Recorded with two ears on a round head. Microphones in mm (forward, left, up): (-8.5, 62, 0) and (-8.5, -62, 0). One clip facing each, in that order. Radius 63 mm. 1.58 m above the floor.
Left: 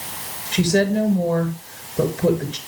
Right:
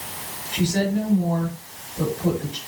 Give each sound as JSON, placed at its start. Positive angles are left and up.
{"t": 0.5, "sound": "a woman speaking", "side_deg": 70, "distance_m": 6.0}